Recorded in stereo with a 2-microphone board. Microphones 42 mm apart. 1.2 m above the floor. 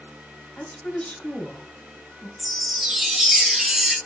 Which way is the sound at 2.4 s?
5° right (ahead or behind).